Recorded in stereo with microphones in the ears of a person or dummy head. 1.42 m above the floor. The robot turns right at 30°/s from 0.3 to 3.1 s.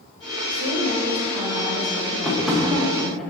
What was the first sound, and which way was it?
A woman speaking, 75° right.